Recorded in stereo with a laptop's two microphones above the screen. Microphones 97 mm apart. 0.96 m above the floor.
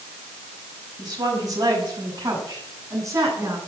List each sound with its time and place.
1.0 s a woman speaking: 40° right (ahead or behind), 6 m; by 3.6 s 30° right (ahead or behind), 9 m